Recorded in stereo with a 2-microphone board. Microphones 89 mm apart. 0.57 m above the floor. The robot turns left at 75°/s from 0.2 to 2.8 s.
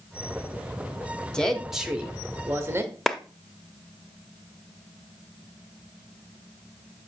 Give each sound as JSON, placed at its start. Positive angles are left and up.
{"t": 1.3, "sound": "a woman speaking", "side_deg": 10, "distance_m": 1.0}
{"t": 3.1, "sound": "a clap", "side_deg": 0, "distance_m": 0.5}